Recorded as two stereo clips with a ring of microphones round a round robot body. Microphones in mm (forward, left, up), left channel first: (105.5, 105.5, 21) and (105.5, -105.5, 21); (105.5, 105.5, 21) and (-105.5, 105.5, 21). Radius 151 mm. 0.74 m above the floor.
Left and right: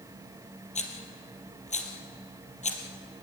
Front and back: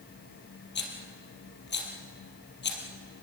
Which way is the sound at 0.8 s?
35° left.